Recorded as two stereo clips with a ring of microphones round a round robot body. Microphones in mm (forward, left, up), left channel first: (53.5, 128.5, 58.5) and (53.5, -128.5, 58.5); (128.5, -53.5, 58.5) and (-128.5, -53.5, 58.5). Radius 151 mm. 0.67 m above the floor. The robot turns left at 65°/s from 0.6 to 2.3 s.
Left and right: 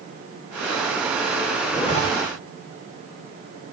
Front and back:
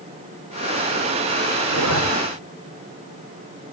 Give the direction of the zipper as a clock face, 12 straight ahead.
6 o'clock.